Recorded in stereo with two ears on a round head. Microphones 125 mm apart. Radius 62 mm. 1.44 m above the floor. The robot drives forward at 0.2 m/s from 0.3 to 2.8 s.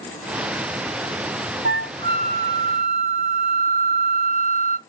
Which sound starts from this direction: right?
A flute, at 1.6 s.